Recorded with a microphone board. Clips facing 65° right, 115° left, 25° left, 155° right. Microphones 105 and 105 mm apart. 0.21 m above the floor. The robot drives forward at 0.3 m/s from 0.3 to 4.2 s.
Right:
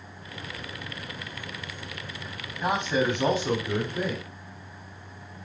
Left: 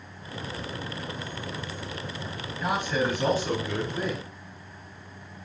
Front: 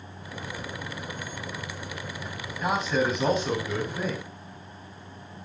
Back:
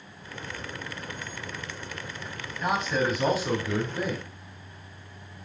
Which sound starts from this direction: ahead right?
A man speaking, at 2.6 s.